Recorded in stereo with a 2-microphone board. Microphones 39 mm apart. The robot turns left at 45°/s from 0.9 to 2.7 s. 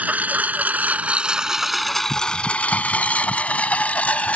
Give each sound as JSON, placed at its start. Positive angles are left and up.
{"t": 0.0, "sound": "a lawn mower", "side_deg": -45}